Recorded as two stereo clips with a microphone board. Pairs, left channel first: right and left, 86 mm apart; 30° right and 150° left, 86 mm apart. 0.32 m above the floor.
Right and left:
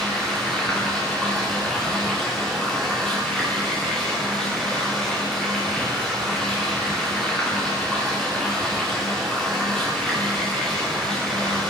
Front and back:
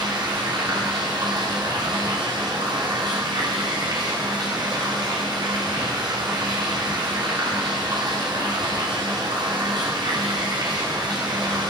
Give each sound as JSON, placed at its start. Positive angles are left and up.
{"t": 0.0, "sound": "running water", "azimuth_deg": -175, "distance_m": 6.5}